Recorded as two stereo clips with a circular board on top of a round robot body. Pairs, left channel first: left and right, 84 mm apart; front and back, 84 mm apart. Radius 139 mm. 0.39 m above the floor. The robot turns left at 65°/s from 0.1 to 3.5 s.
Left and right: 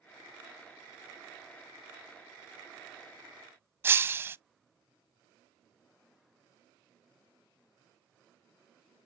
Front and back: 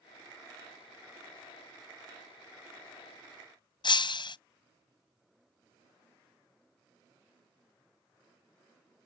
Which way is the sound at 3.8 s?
25° right.